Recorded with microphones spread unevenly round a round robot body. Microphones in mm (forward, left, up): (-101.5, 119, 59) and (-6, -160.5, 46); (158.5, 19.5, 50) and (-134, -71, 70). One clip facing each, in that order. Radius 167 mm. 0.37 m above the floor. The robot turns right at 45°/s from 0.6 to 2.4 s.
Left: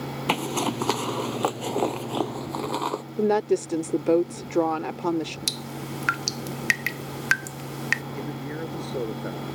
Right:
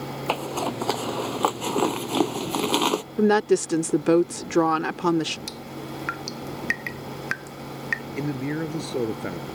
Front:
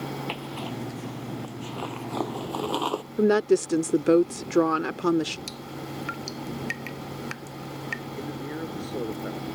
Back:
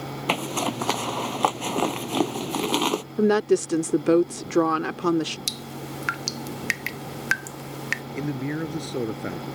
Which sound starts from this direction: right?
A woman speaking, at 3.2 s.